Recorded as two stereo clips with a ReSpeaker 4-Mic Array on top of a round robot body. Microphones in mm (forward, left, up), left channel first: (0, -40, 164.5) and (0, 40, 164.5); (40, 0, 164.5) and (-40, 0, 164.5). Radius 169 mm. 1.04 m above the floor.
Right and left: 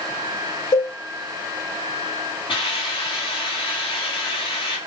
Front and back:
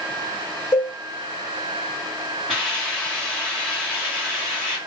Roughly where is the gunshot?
I don't hear a gunshot.